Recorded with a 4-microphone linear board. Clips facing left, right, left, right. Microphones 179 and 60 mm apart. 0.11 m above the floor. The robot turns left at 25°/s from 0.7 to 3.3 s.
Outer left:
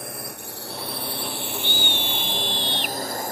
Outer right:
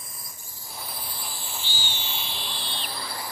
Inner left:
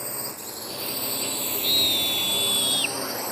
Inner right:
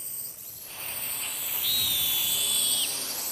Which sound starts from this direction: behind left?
A scream, at 1.6 s.